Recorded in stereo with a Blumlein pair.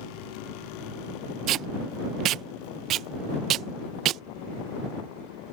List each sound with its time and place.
1.5 s tape being pulled: 35° right